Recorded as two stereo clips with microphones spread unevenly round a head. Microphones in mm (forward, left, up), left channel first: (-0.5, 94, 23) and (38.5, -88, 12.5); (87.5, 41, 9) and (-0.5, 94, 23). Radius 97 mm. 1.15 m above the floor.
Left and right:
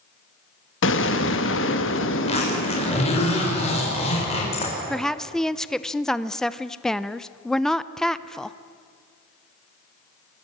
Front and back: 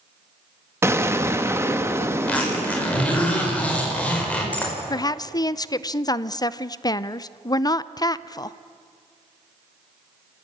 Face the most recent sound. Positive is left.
turn(degrees=15)